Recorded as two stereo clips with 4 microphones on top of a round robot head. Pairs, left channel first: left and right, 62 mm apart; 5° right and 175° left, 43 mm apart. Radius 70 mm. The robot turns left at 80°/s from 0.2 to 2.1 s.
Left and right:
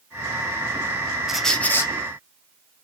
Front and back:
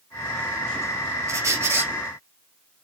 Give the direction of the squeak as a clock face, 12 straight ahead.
6 o'clock.